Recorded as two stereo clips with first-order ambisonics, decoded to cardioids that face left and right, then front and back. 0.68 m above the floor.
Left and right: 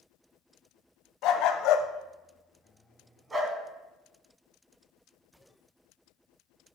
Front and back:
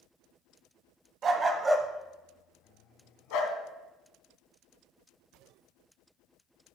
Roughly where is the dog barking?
Behind left.